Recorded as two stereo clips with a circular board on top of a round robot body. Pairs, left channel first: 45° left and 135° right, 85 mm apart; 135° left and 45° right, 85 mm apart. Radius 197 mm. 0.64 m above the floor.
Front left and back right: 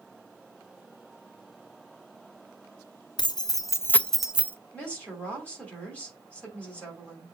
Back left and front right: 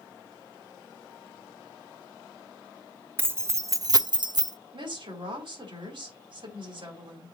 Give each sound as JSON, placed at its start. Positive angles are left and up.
{"t": 3.2, "sound": "keys jangling", "azimuth_deg": 20, "distance_m": 1.1}
{"t": 4.7, "sound": "a woman speaking", "azimuth_deg": -30, "distance_m": 4.5}